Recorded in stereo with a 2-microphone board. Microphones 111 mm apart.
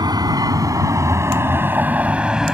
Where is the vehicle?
40° right (ahead or behind); by 2.5 s 5° right (ahead or behind).